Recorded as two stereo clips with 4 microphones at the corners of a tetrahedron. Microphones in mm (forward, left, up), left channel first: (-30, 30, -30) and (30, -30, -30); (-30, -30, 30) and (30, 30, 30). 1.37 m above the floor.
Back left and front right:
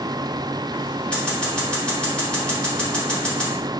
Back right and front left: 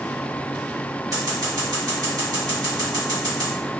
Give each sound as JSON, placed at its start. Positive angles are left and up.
{"t": 1.1, "sound": "scissors", "azimuth_deg": 60, "distance_m": 1.3}